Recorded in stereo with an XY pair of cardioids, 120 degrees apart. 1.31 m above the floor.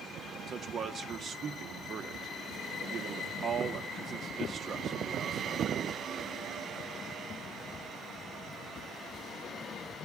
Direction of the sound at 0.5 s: 45° right.